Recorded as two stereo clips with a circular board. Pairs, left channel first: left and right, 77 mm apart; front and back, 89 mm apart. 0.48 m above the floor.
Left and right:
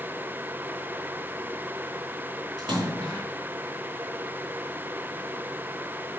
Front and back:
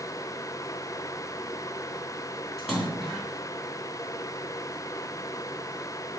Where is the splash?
90° right, 2.5 m.